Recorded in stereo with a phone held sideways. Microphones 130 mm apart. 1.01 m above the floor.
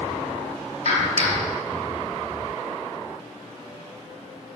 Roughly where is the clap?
Left.